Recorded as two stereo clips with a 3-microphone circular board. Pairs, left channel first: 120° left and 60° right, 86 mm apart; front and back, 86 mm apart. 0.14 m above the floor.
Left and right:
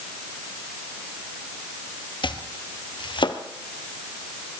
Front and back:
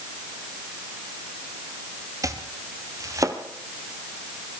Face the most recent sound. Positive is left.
turn(degrees=135)